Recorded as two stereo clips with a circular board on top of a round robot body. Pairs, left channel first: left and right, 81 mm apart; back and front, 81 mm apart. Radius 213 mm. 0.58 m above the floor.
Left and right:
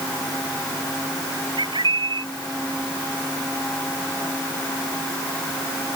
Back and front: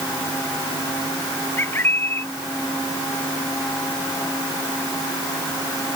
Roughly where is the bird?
Behind right.